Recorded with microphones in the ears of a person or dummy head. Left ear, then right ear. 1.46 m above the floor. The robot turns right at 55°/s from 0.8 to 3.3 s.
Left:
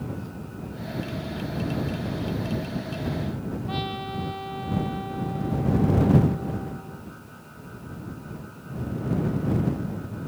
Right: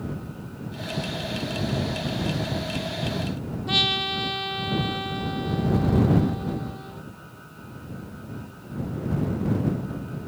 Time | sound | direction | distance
3.7 | a trumpet | 35° right (ahead or behind) | ?